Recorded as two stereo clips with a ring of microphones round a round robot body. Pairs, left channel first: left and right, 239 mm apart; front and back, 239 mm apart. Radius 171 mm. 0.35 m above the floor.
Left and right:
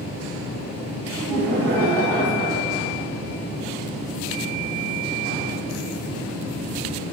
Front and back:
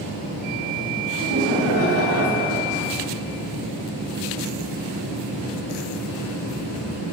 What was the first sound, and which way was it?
Laughter, 170° right.